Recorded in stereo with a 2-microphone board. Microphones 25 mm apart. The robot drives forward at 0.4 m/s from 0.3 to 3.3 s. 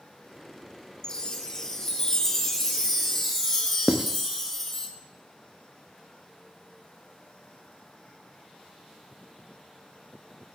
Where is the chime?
25° left (ahead or behind), 0.7 m; by 4.9 s 10° left (ahead or behind), 1.6 m.